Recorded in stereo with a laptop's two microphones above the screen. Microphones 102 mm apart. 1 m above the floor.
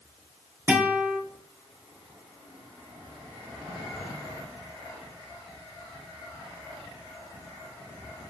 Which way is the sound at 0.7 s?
20° right (ahead or behind).